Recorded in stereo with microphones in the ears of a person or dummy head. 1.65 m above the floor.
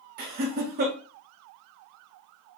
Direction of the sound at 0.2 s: 45° right (ahead or behind).